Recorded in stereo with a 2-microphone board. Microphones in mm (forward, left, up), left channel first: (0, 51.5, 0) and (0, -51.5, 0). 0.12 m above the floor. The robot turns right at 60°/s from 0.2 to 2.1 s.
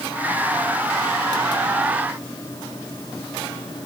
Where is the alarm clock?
No alarm clock in this recording.